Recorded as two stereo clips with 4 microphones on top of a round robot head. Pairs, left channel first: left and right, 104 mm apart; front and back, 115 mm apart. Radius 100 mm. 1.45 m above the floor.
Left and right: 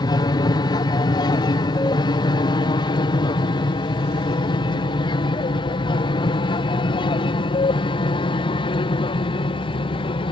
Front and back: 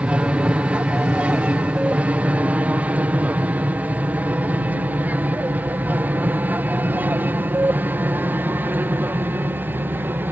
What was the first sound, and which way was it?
An aircraft, 105° left.